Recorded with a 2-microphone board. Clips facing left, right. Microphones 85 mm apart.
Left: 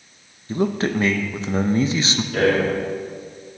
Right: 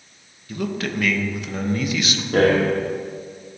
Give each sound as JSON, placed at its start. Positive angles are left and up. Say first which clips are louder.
{"t": 0.5, "sound": "a man speaking", "louder": "left 5 dB", "side_deg": 30, "distance_m": 0.5}
{"t": 2.3, "sound": "a rattle", "louder": "right 2 dB", "side_deg": -50, "distance_m": 1.9}